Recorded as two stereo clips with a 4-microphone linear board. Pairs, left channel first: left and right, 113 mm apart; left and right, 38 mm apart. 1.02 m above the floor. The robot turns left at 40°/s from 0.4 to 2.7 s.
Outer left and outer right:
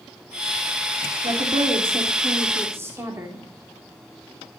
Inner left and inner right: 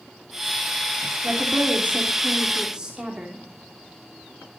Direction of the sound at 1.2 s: 100° right.